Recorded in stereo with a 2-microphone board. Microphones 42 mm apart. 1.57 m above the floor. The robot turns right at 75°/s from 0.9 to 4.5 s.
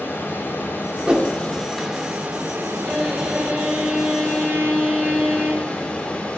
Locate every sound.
0.0 s running water: 110° left, 3.5 m; by 6.4 s 20° left, 3.5 m
1.1 s a whoosh: 25° right (ahead or behind), 1.6 m; by 1.3 s 40° right (ahead or behind), 1.6 m
2.9 s a violin: 175° left, 6.5 m; by 5.6 s 60° right, 6.5 m